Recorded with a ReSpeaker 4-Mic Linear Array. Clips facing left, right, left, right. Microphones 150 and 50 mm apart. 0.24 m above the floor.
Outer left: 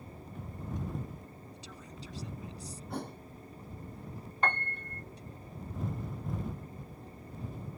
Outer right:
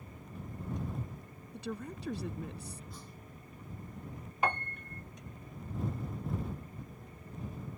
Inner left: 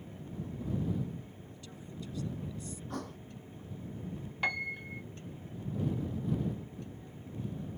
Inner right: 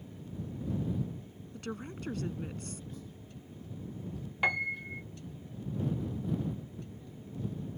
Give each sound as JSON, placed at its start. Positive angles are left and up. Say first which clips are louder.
{"t": 1.5, "sound": "a woman speaking", "louder": "outer right 8 dB, inner right 8 dB", "side_deg": -60}
{"t": 2.9, "sound": "a thud", "louder": "outer left 12 dB, inner left 7 dB", "side_deg": 65}
{"t": 4.4, "sound": "a piano", "louder": "outer right 1 dB, inner right 4 dB", "side_deg": -10}